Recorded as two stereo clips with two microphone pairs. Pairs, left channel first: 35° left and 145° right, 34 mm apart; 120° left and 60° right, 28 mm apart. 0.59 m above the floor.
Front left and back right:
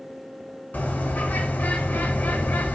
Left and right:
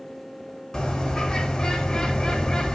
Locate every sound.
0.7 s a bird: 50° left, 0.7 m